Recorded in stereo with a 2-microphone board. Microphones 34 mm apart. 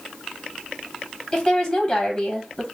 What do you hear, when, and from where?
1.3 s a woman speaking: 10° left (ahead or behind), 1.5 m